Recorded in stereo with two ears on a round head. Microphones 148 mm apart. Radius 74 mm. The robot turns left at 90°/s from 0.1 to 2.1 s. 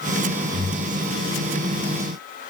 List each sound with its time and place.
0.5 s breathing: 40° left (ahead or behind), 3 m; by 1.0 s centre (ahead or behind), 3 m